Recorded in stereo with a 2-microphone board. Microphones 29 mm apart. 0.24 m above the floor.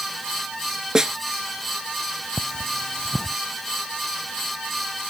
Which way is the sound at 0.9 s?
20° right (ahead or behind).